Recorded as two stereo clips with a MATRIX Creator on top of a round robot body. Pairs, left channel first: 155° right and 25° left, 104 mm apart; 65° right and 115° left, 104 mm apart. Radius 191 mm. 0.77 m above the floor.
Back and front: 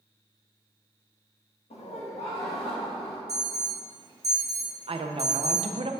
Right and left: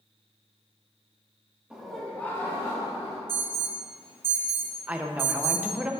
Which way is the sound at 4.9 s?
35° left.